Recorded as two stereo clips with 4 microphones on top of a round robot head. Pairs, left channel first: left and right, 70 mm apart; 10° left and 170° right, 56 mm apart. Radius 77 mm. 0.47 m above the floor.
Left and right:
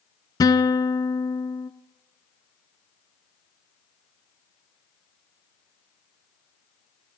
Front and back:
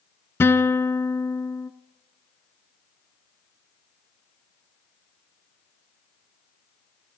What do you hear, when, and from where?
0.4 s a guitar: 60° left, 1.0 m